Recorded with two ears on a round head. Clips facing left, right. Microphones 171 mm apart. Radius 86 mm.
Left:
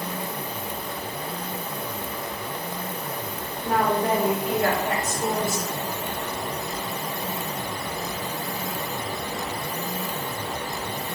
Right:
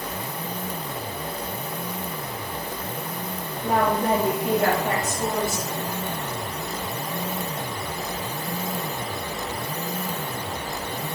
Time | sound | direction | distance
3.6 | a woman speaking | 50° right (ahead or behind) | 3 m